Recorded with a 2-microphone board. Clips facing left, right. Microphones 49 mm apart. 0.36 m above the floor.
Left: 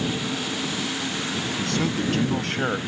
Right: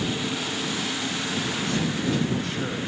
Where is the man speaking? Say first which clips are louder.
Left 4 dB; 65° left (ahead or behind); by 2.8 s 55° left (ahead or behind).